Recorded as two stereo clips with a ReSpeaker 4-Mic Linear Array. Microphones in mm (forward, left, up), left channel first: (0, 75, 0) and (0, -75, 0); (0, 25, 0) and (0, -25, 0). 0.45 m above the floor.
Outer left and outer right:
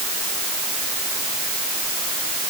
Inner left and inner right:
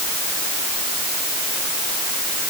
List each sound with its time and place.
Only background noise.